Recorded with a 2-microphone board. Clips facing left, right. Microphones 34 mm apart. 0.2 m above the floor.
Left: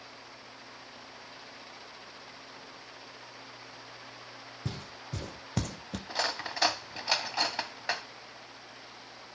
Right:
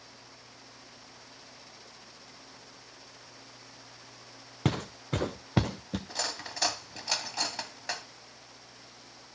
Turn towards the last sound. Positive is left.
turn(degrees=20)  # may be behind; listen again after turning